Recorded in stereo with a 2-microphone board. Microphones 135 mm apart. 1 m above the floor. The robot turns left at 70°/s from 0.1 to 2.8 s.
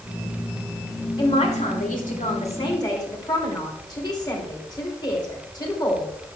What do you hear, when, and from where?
1.2 s a man speaking: 145° left, 2.5 m; by 6.4 s 30° left, 2.5 m